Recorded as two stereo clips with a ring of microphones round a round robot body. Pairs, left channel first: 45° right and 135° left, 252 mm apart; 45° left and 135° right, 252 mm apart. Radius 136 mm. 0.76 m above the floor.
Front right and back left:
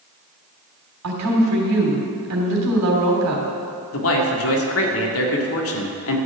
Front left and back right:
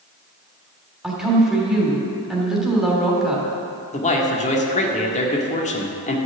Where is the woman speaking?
135° left, 3 m.